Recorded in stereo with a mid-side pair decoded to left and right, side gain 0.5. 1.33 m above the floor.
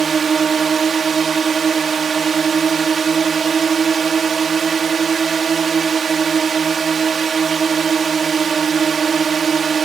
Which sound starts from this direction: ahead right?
A drone, at 0.0 s.